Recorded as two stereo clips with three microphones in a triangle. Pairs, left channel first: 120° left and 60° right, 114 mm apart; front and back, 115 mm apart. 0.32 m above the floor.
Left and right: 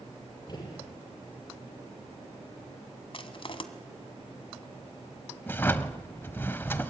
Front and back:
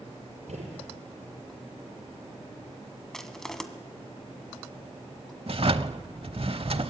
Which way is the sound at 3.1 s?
85° left.